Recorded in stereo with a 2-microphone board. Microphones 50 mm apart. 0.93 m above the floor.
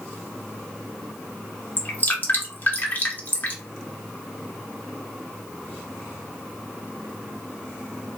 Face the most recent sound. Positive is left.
turn(degrees=40)  # may be behind; listen again after turning